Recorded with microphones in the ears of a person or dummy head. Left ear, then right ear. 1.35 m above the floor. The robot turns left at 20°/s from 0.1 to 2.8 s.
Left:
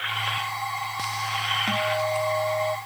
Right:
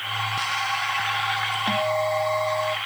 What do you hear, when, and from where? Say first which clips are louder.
1.7 s a guitar: right 2 dB; 10° right (ahead or behind); by 2.8 s 10° left (ahead or behind)